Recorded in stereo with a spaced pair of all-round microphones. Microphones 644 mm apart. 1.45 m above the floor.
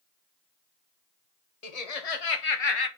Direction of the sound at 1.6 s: 70° left (ahead or behind).